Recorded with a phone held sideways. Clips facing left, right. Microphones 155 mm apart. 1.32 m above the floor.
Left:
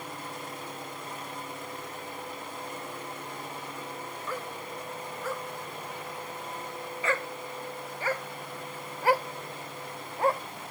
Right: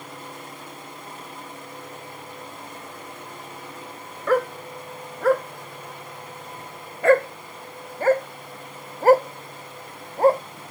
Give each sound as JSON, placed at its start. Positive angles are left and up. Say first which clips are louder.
{"t": 4.3, "sound": "a dog barking", "louder": "right 18 dB", "side_deg": -75}